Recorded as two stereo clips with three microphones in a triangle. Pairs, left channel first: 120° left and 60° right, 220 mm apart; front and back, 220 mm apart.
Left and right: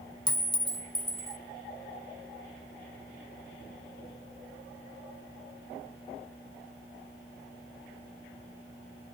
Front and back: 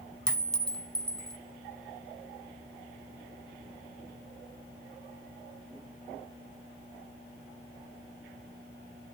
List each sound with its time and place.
0.3 s a clink: 85° left, 0.6 m